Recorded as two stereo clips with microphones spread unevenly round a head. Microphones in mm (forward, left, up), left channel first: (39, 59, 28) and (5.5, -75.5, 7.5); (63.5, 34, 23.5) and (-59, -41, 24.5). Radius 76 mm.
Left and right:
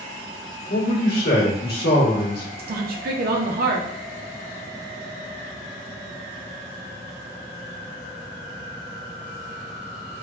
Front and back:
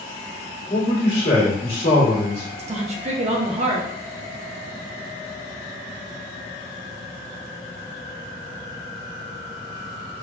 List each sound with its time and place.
0.7 s a man speaking: 85° left, 1.3 m
2.6 s a woman speaking: 100° right, 0.6 m